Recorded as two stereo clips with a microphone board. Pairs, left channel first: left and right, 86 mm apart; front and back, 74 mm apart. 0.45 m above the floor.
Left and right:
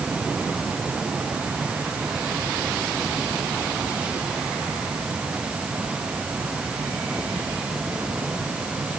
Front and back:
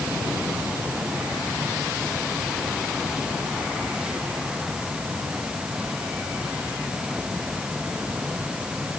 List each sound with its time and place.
Only background noise.